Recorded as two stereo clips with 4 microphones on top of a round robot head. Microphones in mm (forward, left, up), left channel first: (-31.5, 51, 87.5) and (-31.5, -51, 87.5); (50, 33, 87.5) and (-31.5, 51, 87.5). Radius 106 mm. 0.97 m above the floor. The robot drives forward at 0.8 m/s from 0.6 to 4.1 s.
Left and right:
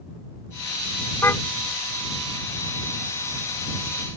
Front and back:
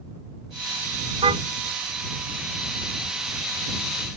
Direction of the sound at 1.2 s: 155° left.